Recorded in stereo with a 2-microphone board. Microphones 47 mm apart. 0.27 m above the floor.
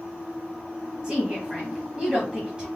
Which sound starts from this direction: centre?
A woman speaking, at 1.0 s.